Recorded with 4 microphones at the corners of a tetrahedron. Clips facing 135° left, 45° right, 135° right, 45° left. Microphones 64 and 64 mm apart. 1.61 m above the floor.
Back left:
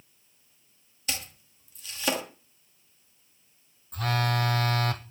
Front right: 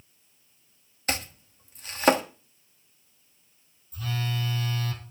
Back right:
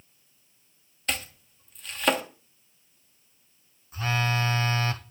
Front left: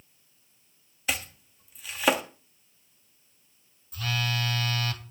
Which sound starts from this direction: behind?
A phone buzzing, at 3.9 s.